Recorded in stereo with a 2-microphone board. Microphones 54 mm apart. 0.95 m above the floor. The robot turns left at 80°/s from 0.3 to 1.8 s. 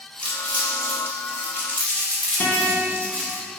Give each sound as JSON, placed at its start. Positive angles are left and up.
{"t": 0.2, "sound": "crumpling", "side_deg": 15, "distance_m": 0.9}
{"t": 2.4, "sound": "a guitar", "side_deg": 35, "distance_m": 0.6}